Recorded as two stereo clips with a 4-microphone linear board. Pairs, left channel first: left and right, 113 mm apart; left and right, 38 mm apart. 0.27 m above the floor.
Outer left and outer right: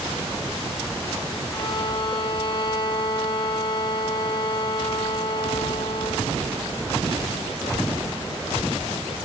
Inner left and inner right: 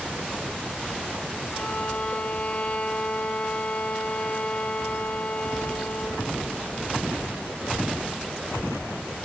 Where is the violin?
45° left (ahead or behind), 1.8 m.